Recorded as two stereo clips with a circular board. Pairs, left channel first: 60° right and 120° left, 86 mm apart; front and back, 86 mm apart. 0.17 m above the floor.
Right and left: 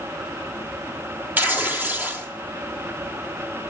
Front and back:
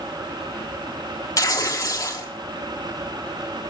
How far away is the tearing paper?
About 1.2 m.